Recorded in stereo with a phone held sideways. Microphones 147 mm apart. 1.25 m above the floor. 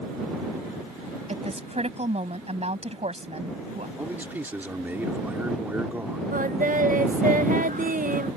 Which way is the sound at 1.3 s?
45° right (ahead or behind).